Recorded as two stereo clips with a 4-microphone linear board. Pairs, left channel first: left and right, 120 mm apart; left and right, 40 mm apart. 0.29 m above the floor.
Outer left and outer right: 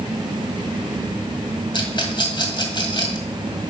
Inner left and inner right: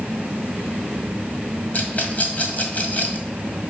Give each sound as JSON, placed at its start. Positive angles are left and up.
{"t": 1.7, "sound": "a rattle", "side_deg": 40, "distance_m": 1.8}